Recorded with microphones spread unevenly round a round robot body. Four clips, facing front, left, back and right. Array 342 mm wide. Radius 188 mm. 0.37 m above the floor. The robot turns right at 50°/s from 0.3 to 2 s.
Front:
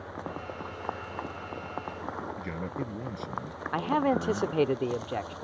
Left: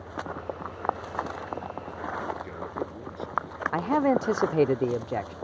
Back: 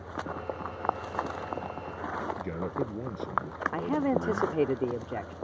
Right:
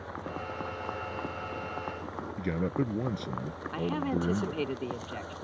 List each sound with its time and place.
2.4 s a man speaking: 80° right
3.7 s a man speaking: 90° left